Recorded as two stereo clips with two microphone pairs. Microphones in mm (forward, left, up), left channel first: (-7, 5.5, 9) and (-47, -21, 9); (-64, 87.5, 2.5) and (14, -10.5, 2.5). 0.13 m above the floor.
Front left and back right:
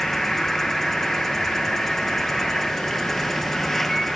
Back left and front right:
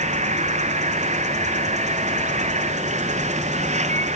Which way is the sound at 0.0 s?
55° right.